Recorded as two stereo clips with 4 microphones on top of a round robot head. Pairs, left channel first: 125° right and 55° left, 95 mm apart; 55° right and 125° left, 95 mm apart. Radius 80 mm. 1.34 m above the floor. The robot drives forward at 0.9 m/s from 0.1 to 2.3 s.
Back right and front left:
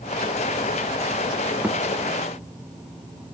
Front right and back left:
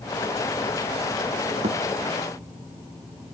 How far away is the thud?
About 1.5 m.